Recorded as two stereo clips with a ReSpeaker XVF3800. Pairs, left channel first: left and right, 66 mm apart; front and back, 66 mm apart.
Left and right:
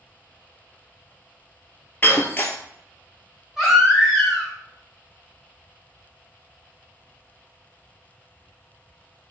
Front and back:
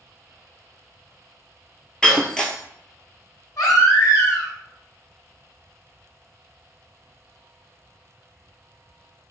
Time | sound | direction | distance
2.0 | breaking glass | 65° left | 0.5 m
3.6 | a baby crying | 10° right | 1.8 m